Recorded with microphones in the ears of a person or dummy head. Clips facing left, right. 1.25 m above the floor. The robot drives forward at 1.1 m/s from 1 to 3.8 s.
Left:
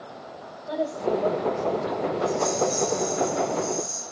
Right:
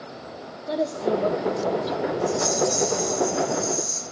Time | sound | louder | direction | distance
0.7 | a woman speaking | right 2 dB | 40° right (ahead or behind) | 2 m
2.3 | a rattle | even | 50° right (ahead or behind) | 8.5 m